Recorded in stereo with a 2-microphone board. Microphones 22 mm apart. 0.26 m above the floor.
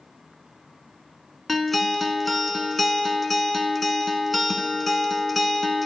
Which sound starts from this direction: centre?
A guitar, at 1.5 s.